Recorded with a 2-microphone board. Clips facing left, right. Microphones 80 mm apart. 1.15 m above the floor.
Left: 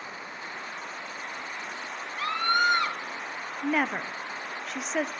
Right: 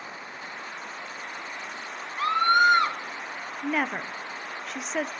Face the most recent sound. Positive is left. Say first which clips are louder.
# left 1 dB
turn(degrees=0)  # may be behind; listen again after turning